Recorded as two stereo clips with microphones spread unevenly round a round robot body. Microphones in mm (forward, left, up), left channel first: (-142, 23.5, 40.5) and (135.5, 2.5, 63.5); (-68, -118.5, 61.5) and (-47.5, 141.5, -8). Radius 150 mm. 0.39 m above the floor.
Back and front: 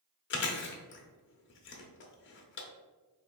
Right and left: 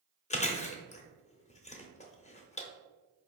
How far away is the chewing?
About 0.8 m.